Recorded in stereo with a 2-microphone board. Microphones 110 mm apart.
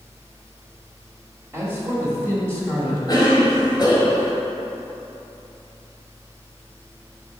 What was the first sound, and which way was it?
A man speaking, 25° right (ahead or behind).